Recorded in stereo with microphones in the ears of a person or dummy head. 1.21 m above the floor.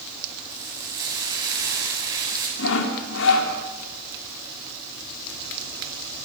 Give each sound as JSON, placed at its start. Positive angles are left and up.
{"t": 0.5, "sound": "frying", "side_deg": -20, "distance_m": 10.0}
{"t": 2.6, "sound": "sawing", "side_deg": 70, "distance_m": 3.5}